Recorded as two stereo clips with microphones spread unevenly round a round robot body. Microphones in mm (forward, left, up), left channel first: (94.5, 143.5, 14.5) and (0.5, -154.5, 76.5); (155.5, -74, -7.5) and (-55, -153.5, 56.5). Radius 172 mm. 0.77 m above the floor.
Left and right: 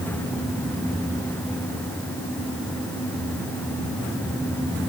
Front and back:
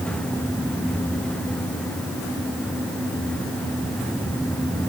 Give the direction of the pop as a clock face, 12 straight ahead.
No pop in this recording.